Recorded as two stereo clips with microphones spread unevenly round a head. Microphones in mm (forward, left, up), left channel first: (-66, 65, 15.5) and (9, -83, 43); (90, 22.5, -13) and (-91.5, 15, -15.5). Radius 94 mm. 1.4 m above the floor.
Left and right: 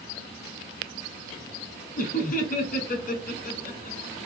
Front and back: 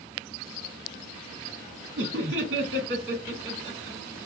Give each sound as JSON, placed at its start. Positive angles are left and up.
{"t": 2.0, "sound": "laughter", "azimuth_deg": 155, "distance_m": 2.5}